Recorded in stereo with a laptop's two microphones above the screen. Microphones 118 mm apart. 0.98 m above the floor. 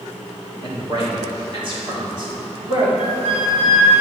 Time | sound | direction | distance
0.6 | a man speaking | 40° right (ahead or behind) | 2.0 m
3.0 | a flute | 85° right | 2.5 m